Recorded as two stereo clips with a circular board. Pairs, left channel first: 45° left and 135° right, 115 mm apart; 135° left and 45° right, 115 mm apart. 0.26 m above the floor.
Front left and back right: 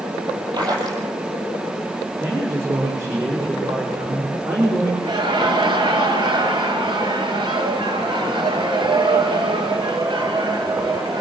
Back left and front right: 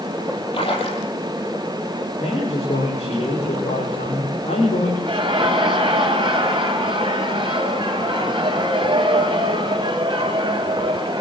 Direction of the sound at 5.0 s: 90° right.